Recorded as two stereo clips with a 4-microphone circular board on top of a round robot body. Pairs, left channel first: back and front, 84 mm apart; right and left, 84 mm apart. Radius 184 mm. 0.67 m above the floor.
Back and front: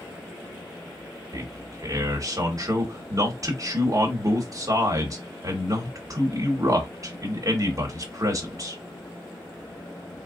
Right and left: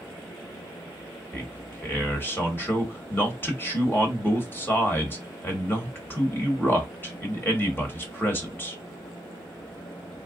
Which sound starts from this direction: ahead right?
A man speaking, at 1.3 s.